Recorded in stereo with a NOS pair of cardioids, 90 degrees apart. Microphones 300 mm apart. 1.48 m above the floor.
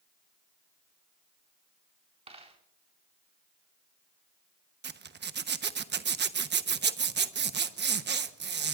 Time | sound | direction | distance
2.3 | a dropped coin | 20° right | 4 m
4.8 | a zipper | 35° right | 1.1 m